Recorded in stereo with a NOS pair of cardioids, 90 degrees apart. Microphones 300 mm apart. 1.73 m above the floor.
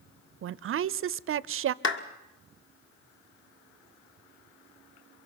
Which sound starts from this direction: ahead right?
A woman speaking, at 0.4 s.